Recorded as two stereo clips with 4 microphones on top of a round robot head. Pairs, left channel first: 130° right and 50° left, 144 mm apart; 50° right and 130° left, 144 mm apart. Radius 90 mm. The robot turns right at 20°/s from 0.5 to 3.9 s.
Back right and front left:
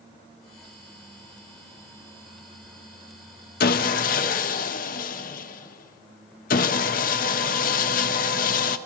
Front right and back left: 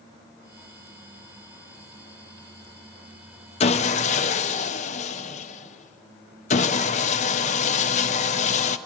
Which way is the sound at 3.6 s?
100° right.